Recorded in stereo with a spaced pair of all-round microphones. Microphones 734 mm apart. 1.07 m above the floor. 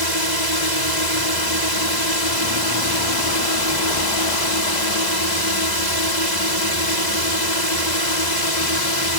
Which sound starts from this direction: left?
A drone, at 0.0 s.